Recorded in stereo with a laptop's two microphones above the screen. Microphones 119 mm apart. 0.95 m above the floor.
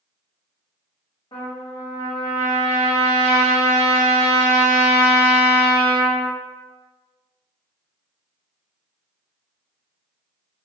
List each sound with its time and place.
1.3 s a trumpet: 55° left (ahead or behind), 1.4 m